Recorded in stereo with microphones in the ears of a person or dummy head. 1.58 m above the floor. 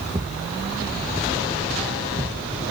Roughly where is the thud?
Centre.